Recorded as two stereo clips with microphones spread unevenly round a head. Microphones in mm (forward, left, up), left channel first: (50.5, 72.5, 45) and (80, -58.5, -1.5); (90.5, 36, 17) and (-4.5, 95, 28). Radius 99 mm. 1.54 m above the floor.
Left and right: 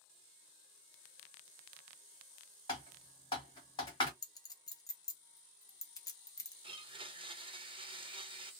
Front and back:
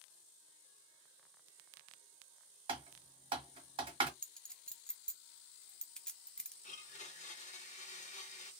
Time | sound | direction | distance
2.7 | typing on a keyboard | 135° left | 1.0 m
4.2 | a clink | 55° left | 0.8 m
6.6 | a blender | 25° right | 0.9 m